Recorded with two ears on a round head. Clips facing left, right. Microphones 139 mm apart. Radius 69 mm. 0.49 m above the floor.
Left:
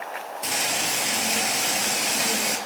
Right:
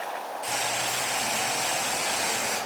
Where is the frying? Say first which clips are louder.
Left 2 dB; 70° left (ahead or behind), 5.5 m.